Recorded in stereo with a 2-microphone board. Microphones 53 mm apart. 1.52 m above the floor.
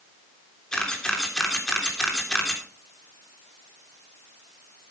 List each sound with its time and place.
0.7 s a camera shutter: 15° left (ahead or behind), 3 m